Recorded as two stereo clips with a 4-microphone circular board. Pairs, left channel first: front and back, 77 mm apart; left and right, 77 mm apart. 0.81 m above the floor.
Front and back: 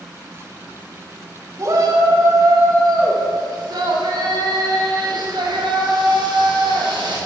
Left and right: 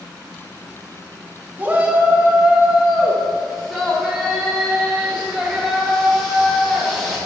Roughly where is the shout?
Behind right.